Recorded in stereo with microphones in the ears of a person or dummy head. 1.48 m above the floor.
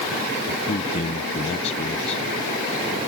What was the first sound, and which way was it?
A man speaking, 40° left (ahead or behind).